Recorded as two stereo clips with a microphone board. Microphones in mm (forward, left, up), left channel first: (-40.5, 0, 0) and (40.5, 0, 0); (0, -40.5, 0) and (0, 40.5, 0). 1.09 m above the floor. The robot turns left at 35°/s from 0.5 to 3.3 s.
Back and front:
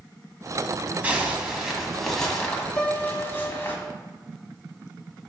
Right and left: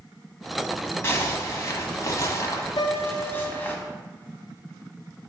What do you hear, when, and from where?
1.0 s a zipper: 60° right, 1.1 m; by 3.8 s 140° right, 1.1 m
2.8 s a piano: 105° right, 1.1 m; by 3.7 s 125° right, 1.1 m